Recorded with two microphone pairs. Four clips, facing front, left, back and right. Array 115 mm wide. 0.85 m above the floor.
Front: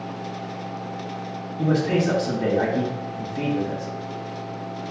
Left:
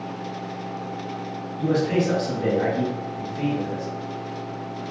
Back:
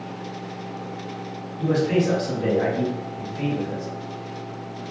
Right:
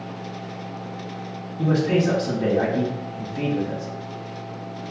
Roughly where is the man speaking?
Ahead right.